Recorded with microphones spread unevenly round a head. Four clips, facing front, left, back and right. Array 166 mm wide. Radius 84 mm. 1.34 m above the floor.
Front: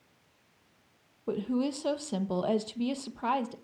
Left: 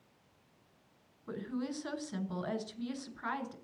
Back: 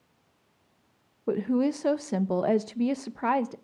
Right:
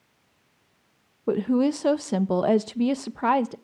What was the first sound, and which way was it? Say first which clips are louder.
A woman speaking: right 17 dB, back 5 dB; 110° right.